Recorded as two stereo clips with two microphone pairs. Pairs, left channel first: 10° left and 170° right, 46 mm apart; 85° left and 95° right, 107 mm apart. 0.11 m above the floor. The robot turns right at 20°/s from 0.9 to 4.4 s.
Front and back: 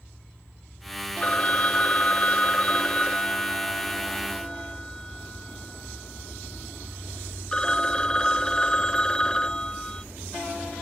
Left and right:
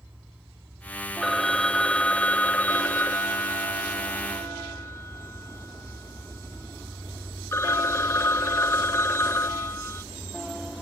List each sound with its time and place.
1.2 s a phone ringing: straight ahead; by 10.0 s 65° left